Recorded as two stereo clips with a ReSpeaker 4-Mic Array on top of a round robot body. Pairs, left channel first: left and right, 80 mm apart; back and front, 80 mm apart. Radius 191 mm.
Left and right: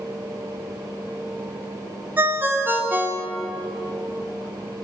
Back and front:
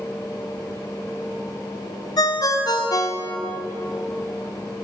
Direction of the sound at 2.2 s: 150° right.